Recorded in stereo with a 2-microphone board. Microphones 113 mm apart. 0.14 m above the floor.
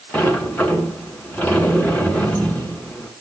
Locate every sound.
0.1 s a sliding door: 15° left (ahead or behind), 1.1 m